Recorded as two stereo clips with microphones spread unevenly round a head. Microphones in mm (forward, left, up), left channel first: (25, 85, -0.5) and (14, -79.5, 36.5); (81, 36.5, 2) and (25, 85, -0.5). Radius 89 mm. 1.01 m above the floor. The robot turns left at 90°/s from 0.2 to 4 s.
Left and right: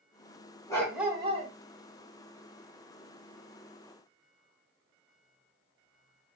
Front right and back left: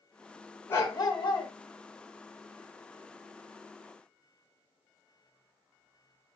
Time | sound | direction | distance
0.7 | a dog barking | 10° left | 1.5 m